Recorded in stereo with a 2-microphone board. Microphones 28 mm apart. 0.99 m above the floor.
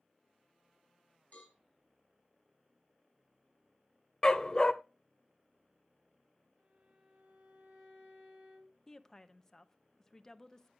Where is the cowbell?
45° left (ahead or behind), 4.5 m.